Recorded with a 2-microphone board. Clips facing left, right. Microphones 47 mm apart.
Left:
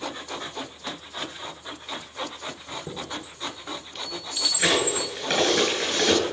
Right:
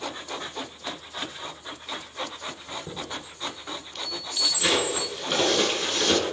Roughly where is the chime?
Centre.